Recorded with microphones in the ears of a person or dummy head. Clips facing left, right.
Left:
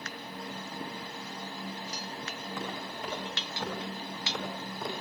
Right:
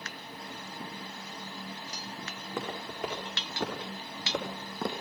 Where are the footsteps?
55° right (ahead or behind), 5.5 m; by 5.0 s 60° right (ahead or behind), 3 m.